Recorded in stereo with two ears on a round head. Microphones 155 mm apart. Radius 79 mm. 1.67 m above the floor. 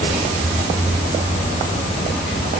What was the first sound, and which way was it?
Only background noise.